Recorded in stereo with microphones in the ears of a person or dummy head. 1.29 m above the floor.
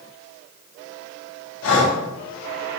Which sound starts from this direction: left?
Breathing, at 1.6 s.